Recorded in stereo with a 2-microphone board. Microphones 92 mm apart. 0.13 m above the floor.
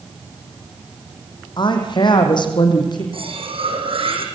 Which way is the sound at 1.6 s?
55° left (ahead or behind).